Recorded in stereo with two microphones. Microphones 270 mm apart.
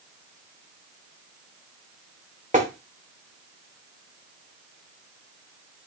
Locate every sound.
2.5 s tapping: 30° right (ahead or behind), 1.5 m